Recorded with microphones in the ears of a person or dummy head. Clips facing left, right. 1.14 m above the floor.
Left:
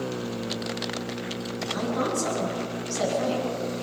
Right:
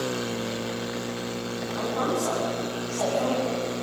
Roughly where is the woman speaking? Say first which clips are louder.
Even; left.